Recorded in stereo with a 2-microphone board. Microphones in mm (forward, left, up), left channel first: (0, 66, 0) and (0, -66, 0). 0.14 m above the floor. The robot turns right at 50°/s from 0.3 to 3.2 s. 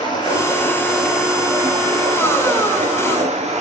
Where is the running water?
140° left, 3 m; by 3.6 s 75° right, 3 m.